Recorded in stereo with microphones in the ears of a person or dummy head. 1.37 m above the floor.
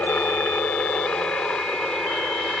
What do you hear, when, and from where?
0.0 s a helicopter: 10° left (ahead or behind); by 2.6 s 5° left (ahead or behind)